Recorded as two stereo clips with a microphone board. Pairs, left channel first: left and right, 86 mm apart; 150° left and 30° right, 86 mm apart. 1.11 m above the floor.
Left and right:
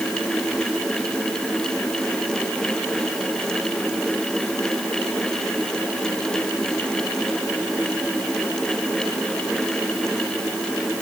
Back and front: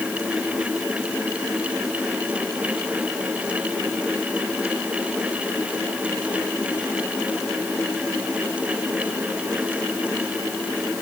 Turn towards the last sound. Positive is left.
No sound to turn to.